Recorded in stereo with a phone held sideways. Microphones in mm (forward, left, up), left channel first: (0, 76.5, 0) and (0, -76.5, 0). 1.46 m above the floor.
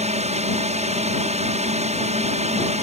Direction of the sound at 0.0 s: 45° right (ahead or behind).